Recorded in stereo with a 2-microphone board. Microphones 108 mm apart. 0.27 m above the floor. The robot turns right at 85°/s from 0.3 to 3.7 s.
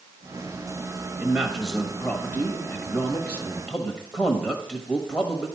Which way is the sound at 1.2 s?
10° right (ahead or behind).